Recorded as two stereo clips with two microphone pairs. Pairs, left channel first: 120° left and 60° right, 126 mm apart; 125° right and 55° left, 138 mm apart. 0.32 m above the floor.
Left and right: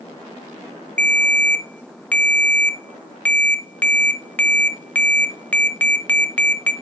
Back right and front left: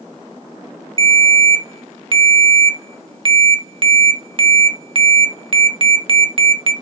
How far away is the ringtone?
About 0.8 m.